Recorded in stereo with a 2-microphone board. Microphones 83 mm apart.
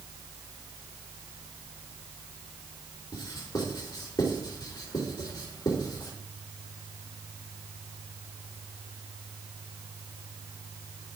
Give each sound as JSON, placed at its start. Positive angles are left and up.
{"t": 3.1, "sound": "writing", "side_deg": 45, "distance_m": 4.0}